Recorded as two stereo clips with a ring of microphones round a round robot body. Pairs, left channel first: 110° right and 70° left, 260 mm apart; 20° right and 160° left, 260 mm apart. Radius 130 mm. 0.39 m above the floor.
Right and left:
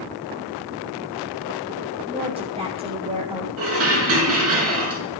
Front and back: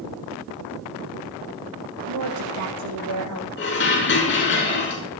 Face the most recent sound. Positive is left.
turn(degrees=30)